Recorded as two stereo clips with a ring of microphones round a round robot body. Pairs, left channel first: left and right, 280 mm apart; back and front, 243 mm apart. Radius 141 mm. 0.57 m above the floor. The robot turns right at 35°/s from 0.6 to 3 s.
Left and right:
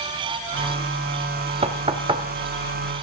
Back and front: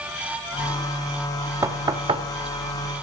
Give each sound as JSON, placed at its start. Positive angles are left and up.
{"t": 1.6, "sound": "knocking", "azimuth_deg": -60, "distance_m": 0.5}